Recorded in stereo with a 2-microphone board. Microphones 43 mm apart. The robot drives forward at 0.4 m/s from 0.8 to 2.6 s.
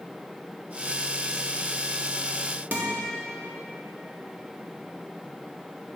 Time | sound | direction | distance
2.7 | a guitar | 40° right (ahead or behind) | 0.8 m